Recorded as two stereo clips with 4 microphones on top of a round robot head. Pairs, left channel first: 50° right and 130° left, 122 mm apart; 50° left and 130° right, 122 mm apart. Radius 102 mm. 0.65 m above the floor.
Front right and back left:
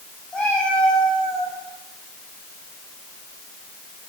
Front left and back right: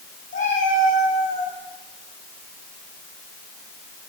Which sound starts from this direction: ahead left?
A cat meowing, at 0.3 s.